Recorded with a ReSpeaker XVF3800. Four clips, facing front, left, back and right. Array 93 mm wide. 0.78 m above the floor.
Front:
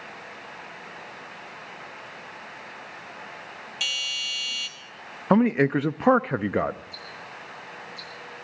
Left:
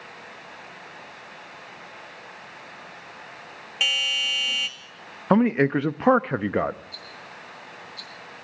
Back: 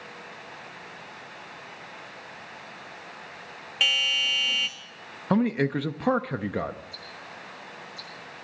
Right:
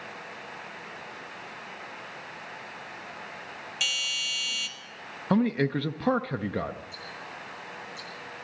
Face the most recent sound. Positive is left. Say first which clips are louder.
# right 1 dB, front 2 dB
turn(degrees=40)